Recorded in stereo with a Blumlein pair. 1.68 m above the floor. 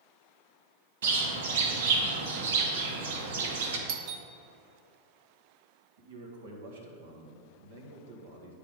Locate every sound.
1.0 s a bird: 60° right, 1.0 m
3.9 s a doorbell: 45° right, 0.6 m
6.0 s a man speaking: 60° right, 1.5 m